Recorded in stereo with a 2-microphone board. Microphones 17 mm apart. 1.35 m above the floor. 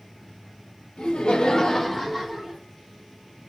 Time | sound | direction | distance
1.0 | laughter | 75° left (ahead or behind) | 0.8 m